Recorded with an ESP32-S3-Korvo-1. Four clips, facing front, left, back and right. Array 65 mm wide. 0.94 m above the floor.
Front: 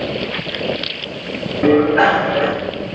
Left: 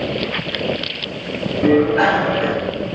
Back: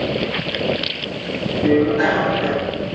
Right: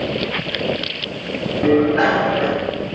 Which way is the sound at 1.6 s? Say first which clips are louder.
Left 1 dB, front 4 dB; 5° right.